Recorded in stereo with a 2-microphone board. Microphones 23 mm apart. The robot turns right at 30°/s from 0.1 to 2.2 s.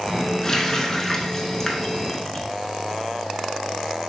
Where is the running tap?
20° left (ahead or behind), 0.8 m.